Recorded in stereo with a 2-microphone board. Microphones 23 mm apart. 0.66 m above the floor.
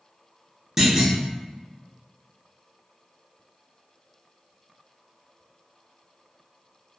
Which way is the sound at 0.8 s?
20° right (ahead or behind).